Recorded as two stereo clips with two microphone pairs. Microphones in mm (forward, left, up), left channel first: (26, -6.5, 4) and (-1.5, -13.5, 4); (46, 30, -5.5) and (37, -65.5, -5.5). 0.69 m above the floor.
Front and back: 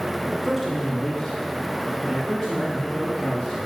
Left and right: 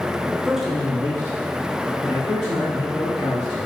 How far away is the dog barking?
No dog barking in this recording.